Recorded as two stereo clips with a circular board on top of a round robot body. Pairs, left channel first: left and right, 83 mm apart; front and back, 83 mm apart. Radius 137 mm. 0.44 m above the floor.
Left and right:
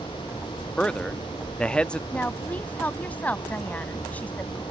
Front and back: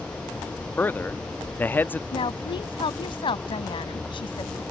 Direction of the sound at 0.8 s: 30° left.